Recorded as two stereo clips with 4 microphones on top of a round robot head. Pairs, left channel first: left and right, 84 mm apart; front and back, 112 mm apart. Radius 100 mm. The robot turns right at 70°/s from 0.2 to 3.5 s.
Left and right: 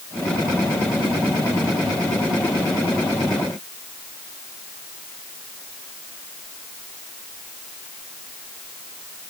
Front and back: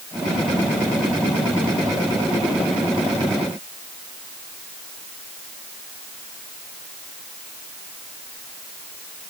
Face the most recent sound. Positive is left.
No sound to turn to.